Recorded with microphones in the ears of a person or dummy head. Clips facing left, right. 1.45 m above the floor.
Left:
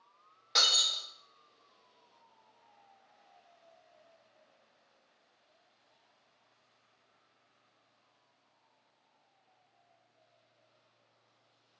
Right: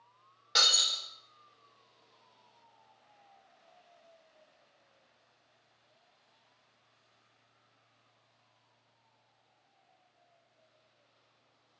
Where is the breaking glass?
5° right (ahead or behind), 1.0 m.